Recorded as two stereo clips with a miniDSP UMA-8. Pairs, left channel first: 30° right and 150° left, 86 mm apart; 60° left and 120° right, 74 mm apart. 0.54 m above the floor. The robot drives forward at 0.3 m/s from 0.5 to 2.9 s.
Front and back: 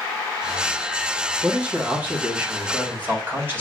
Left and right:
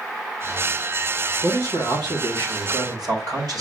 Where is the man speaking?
135° right, 1.9 m; by 3.6 s 145° right, 2 m.